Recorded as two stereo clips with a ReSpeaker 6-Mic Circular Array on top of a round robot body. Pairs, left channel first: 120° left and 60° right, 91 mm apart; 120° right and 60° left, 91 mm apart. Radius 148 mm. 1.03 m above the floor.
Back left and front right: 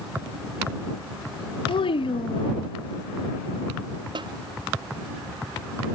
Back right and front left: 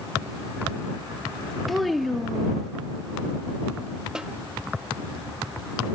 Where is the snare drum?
20° right.